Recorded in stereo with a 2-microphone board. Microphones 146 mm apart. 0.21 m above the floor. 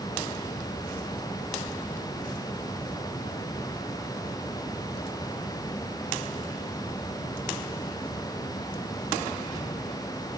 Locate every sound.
Only background noise.